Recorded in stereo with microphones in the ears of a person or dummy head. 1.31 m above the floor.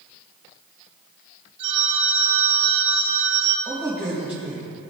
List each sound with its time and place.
1.6 s a phone ringing: 35° right (ahead or behind), 3.5 m
3.6 s a man speaking: 10° right (ahead or behind), 2 m